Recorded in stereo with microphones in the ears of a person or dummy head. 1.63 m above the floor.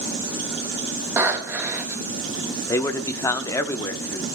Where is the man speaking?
15° left (ahead or behind), 0.7 m.